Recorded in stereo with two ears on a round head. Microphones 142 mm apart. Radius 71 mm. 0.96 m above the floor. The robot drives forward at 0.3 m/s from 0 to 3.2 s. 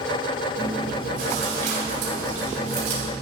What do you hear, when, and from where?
0.6 s chewing: 60° right (ahead or behind), 4 m; by 3.1 s 50° right (ahead or behind), 4.5 m